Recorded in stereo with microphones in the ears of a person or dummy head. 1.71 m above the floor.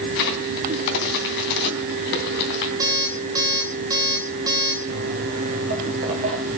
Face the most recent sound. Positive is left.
turn(degrees=-25)  # may be behind; listen again after turning